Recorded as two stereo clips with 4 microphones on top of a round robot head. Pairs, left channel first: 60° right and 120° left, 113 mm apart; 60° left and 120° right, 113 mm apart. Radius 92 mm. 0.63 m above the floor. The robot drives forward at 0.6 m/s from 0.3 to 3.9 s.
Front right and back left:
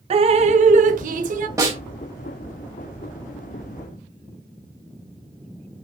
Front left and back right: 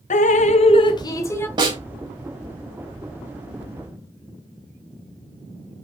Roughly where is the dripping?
Left.